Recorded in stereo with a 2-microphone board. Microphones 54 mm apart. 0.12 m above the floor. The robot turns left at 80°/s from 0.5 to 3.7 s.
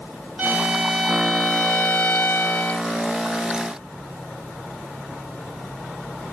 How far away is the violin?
About 1.5 m.